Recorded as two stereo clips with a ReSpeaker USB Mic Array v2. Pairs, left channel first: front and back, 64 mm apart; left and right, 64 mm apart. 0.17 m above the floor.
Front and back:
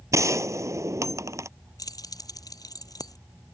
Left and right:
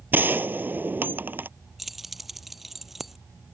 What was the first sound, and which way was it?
A gunshot, 145° right.